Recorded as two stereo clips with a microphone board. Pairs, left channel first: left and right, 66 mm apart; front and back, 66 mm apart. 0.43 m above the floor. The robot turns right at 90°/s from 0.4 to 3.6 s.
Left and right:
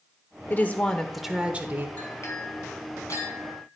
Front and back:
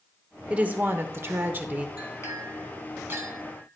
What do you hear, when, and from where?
0.5 s a woman speaking: 120° left, 1.0 m; by 1.9 s 115° right, 1.0 m
2.0 s a clink: 20° left, 2 m; by 3.6 s 170° left, 2 m